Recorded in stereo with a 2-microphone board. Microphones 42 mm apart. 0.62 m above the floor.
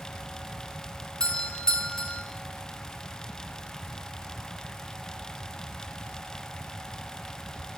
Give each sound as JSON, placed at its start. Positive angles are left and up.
{"t": 1.2, "sound": "a doorbell", "side_deg": 20, "distance_m": 1.3}